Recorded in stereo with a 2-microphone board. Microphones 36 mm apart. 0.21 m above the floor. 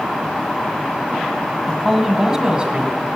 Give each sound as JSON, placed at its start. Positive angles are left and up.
{"t": 1.7, "sound": "a man speaking", "side_deg": 5, "distance_m": 1.3}